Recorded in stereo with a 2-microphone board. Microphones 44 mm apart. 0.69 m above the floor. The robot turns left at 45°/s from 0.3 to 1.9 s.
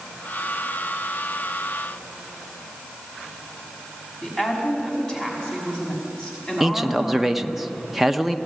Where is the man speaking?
5° right (ahead or behind), 0.8 m.